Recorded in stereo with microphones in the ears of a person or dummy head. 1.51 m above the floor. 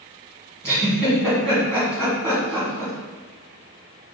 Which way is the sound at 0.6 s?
10° left (ahead or behind).